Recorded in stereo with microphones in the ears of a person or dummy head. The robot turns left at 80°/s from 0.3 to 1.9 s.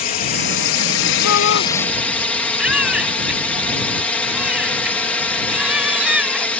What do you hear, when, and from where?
0.0 s a drone: 130° left; by 6.6 s 5° left
1.2 s a shout: 85° left; by 1.7 s 50° left
2.6 s a baby crying: centre (ahead or behind)